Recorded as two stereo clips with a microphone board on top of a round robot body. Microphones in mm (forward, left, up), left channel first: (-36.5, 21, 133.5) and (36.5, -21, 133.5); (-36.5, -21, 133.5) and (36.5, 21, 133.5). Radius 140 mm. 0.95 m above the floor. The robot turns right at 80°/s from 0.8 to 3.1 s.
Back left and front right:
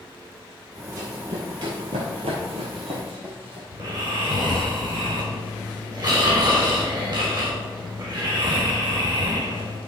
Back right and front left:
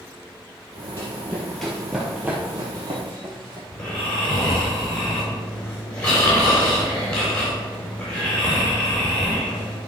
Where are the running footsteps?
90° right, 2 m; by 3.6 s 15° right, 3 m.